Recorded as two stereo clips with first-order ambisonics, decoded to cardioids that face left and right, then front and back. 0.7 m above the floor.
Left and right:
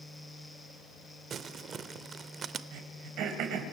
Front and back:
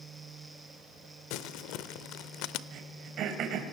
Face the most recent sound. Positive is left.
turn(degrees=-130)